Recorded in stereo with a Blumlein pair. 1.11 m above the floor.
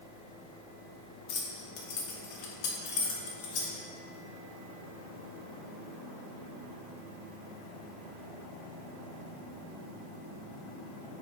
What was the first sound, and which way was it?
Keys jangling, 45° left.